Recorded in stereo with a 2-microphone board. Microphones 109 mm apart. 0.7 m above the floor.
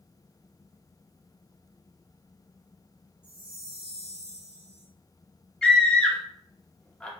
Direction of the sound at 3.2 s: 45° left (ahead or behind).